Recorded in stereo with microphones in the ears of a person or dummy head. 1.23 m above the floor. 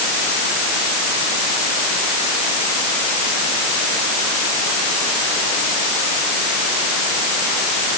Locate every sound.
Only background noise.